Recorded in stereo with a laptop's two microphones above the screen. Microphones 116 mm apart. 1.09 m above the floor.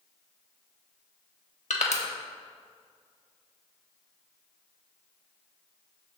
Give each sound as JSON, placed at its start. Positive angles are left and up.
{"t": 1.7, "sound": "crushing", "side_deg": 80, "distance_m": 1.2}